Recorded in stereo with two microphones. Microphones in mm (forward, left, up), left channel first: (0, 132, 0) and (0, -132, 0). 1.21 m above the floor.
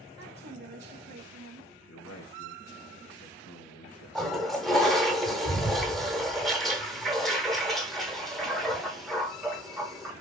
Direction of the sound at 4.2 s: Centre (ahead or behind).